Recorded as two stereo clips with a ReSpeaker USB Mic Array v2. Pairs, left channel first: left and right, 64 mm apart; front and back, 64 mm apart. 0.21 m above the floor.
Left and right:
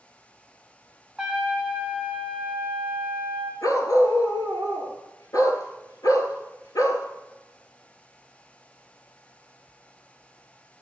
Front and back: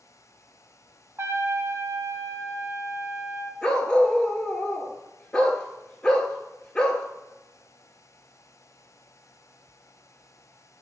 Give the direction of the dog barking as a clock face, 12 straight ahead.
10 o'clock.